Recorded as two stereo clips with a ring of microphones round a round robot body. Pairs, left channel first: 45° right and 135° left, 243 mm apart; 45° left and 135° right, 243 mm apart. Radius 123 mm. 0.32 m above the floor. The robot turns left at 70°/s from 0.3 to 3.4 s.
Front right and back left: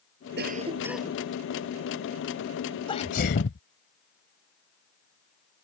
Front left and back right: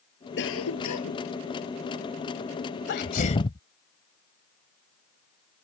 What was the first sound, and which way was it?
A cough, 90° left.